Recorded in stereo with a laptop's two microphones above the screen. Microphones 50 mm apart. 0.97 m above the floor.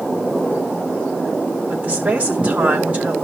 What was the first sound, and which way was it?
A woman speaking, 30° right (ahead or behind).